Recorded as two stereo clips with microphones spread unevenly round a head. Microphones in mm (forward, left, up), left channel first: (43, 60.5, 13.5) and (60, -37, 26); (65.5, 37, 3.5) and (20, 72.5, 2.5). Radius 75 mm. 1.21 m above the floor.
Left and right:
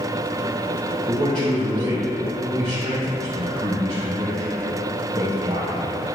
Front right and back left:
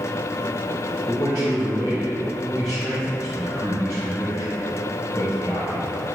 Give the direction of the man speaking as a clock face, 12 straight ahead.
5 o'clock.